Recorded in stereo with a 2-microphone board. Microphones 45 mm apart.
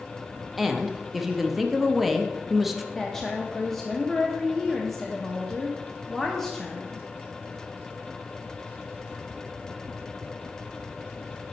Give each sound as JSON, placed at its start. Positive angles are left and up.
{"t": 0.6, "sound": "a woman speaking", "side_deg": -5, "distance_m": 0.6}
{"t": 3.0, "sound": "a woman speaking", "side_deg": 5, "distance_m": 0.8}